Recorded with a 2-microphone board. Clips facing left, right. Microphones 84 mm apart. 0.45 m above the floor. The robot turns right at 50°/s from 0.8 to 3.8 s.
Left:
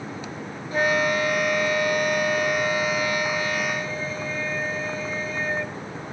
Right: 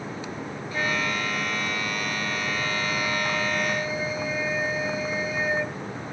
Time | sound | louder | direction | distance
0.7 | a flute | left 6 dB | 35° left | ?